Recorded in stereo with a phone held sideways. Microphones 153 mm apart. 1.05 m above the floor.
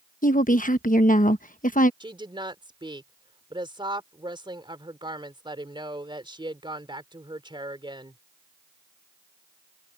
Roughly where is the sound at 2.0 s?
Right.